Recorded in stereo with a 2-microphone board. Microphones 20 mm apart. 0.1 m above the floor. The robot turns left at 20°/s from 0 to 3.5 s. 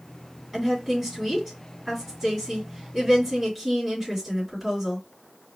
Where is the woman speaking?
20° right (ahead or behind), 1.7 m; by 5.0 s 15° right (ahead or behind), 1.7 m.